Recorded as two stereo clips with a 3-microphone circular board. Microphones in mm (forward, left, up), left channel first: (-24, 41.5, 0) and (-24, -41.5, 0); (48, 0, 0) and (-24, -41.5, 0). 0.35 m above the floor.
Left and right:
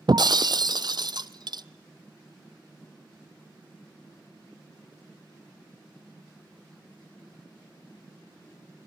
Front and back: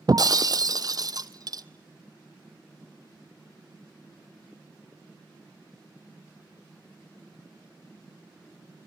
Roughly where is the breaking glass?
Behind right.